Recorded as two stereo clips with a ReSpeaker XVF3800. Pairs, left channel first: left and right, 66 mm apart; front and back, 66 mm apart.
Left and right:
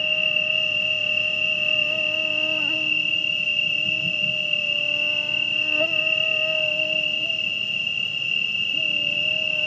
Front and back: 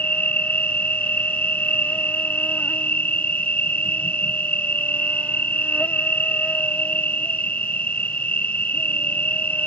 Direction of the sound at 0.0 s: 10° left.